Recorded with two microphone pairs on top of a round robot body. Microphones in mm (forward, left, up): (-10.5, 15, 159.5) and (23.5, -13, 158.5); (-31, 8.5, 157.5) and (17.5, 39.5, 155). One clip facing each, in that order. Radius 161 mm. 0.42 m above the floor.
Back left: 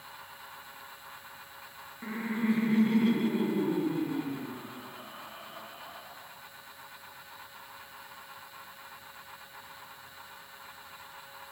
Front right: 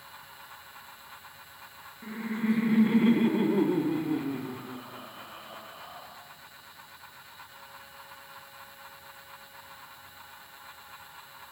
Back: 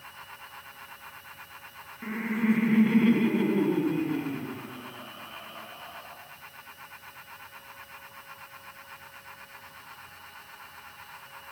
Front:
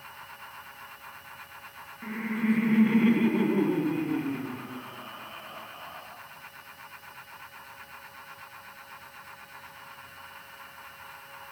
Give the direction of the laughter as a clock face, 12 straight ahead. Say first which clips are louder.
Even, back 1 dB; 7 o'clock.